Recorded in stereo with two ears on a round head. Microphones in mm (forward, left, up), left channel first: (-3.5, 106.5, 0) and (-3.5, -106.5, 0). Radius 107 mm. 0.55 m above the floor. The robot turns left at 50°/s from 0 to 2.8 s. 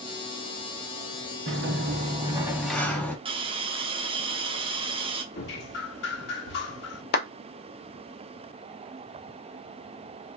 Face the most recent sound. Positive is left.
turn(degrees=40)  # may be behind; listen again after turning